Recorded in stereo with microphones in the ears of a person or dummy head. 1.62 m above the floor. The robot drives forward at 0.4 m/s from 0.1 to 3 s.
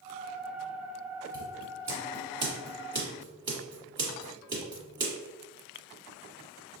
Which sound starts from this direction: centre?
Scissors, at 1.3 s.